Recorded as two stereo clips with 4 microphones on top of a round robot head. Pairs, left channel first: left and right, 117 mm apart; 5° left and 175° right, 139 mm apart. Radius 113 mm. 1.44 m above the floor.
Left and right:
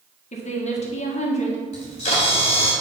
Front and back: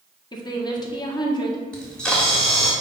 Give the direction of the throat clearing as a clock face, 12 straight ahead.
I don't hear throat clearing.